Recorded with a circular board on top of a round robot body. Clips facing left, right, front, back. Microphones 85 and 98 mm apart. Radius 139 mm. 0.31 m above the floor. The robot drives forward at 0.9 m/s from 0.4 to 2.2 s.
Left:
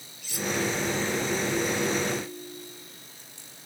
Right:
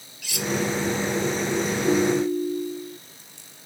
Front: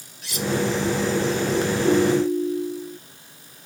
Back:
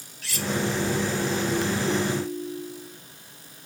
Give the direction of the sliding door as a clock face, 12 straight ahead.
No sliding door in this recording.